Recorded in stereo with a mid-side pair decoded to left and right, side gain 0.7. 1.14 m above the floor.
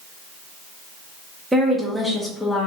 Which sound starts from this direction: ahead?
A woman speaking, at 1.5 s.